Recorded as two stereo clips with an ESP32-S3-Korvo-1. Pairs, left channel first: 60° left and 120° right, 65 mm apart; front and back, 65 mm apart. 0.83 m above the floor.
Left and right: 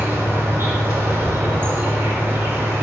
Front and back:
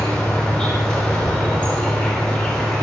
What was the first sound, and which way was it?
An insect, 70° right.